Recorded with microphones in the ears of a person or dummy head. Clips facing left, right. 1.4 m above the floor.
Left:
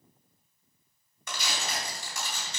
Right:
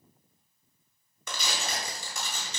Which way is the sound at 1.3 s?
75° right (ahead or behind).